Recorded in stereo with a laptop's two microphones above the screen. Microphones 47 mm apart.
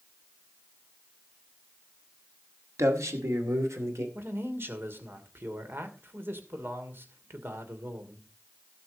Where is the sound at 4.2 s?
50° right (ahead or behind), 2.5 m.